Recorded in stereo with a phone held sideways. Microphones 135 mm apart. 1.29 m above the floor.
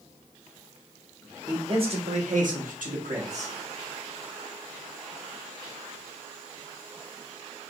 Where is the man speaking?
30° right (ahead or behind), 1.4 m; by 3.5 s 55° right (ahead or behind), 1.5 m.